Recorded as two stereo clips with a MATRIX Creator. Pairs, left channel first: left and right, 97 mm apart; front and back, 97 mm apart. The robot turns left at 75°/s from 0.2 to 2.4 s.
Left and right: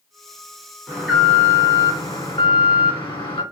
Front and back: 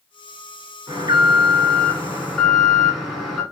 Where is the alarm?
155° right, 2 m; by 3.4 s 90° left, 2 m.